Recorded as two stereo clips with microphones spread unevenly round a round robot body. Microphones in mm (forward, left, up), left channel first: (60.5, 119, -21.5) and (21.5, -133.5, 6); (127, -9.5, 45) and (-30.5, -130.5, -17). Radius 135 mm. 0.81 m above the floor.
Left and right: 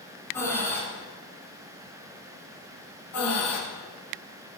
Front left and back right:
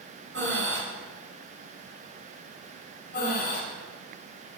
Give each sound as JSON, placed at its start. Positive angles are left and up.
{"t": 0.3, "sound": "breathing", "azimuth_deg": 165, "distance_m": 2.5}
{"t": 3.1, "sound": "breathing", "azimuth_deg": 100, "distance_m": 3.0}